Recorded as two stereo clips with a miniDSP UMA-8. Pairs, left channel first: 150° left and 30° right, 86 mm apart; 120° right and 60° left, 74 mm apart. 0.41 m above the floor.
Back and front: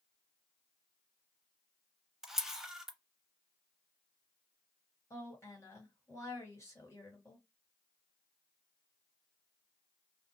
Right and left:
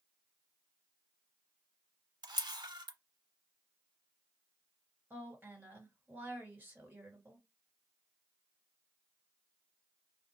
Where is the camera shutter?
55° left, 0.5 m.